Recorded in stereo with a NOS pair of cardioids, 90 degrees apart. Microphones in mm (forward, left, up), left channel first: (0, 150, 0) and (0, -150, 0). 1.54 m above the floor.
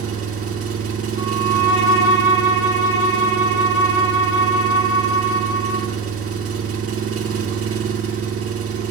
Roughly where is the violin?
Ahead right.